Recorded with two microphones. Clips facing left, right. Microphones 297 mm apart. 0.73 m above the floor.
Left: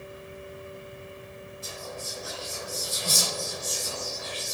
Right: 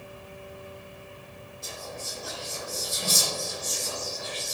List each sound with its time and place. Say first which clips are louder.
1.6 s whispering: even; 55° right (ahead or behind), 1.1 m